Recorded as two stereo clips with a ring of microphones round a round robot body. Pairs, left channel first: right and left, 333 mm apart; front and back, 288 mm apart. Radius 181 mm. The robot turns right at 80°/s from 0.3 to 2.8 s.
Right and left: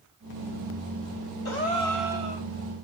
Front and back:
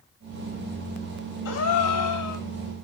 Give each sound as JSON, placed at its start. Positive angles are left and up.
{"t": 1.4, "sound": "a gasp", "azimuth_deg": -45, "distance_m": 1.1}